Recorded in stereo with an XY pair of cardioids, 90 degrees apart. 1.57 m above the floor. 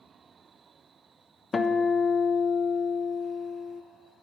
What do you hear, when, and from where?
1.5 s a guitar: 35° left, 0.6 m